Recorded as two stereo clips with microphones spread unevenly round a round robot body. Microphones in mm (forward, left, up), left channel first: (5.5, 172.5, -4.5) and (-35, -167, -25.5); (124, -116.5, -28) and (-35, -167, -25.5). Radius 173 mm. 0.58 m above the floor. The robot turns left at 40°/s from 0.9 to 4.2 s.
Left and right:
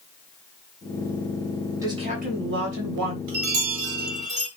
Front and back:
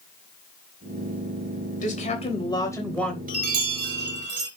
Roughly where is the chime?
Behind right.